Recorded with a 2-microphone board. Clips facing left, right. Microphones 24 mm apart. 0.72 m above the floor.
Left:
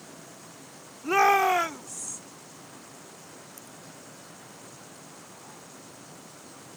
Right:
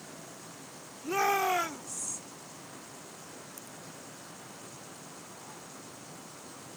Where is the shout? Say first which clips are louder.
Left 7 dB; 45° left (ahead or behind); by 2.2 s 5° left (ahead or behind).